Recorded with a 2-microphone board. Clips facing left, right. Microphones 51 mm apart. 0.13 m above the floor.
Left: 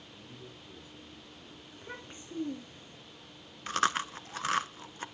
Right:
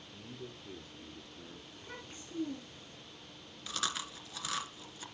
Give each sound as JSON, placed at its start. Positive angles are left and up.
{"t": 0.1, "sound": "a man speaking", "side_deg": -60, "distance_m": 3.0}
{"t": 1.7, "sound": "a child speaking", "side_deg": 30, "distance_m": 5.0}
{"t": 3.7, "sound": "chewing", "side_deg": 50, "distance_m": 0.7}